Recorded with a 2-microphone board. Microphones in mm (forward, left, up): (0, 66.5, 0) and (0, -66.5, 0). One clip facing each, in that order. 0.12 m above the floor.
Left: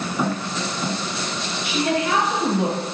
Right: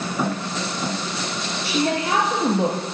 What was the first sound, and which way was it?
A woman speaking, 30° right (ahead or behind).